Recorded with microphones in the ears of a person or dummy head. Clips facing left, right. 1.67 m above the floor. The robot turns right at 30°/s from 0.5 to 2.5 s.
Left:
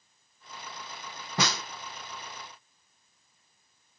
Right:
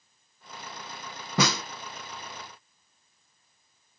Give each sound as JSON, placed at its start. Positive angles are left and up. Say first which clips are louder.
{"t": 1.4, "sound": "a snare drum", "louder": "right 5 dB", "side_deg": -65, "distance_m": 0.5}